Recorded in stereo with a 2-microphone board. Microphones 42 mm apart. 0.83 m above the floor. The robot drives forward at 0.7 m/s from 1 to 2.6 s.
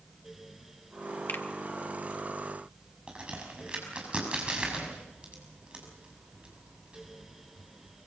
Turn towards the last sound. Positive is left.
turn(degrees=-25)  # may be behind; listen again after turning